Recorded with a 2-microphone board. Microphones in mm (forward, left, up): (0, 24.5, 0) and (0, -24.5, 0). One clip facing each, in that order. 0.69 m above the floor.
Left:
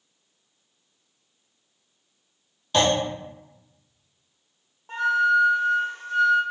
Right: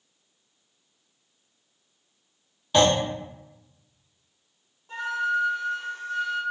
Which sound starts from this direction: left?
A flute, at 4.9 s.